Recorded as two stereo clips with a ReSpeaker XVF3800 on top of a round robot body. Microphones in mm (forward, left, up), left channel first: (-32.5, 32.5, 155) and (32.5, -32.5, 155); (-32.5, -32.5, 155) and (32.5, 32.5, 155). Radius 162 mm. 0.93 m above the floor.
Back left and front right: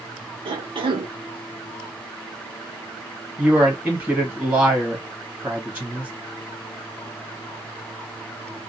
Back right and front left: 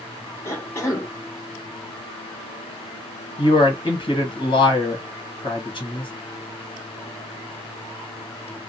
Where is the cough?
70° right, 0.9 m.